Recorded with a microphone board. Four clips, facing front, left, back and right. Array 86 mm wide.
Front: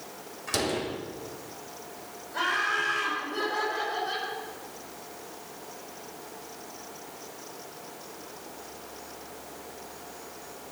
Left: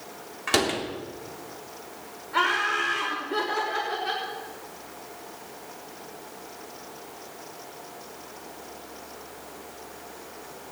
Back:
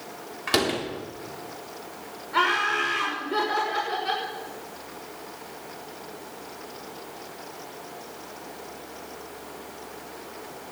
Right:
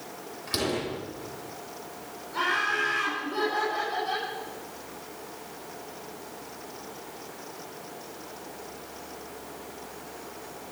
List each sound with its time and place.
0.5 s a door slam: 130° left, 3.5 m
2.3 s laughter: 140° left, 6 m